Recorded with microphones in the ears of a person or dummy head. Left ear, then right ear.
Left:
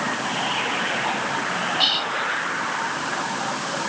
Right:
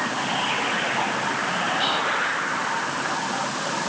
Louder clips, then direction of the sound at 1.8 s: Left 4 dB; 45° left (ahead or behind).